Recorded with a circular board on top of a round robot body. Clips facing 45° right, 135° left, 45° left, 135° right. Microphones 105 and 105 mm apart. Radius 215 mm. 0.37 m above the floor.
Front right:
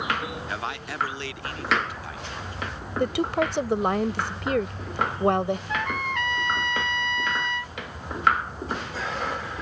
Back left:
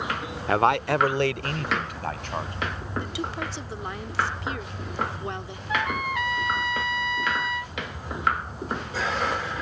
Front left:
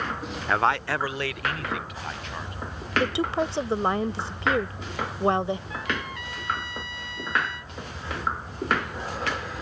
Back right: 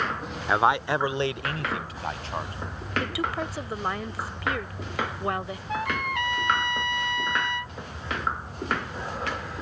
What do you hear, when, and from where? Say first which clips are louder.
0.5 s a man speaking: back left 11 dB, back right 1 dB; 145° left; by 2.5 s 170° left
3.0 s a woman speaking: front right 10 dB, front left 5 dB; 15° right
5.7 s a trumpet: back left 1 dB, back right 3 dB; 140° right